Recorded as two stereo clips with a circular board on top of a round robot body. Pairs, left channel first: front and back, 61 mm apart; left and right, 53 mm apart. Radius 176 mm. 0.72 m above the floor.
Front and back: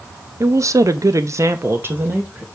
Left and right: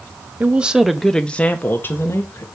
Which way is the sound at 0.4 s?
150° right.